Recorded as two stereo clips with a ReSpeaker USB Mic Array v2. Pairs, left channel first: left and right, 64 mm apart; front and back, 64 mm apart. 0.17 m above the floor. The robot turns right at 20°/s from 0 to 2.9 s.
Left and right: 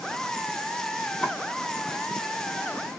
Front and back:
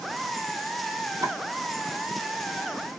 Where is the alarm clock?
No alarm clock in this recording.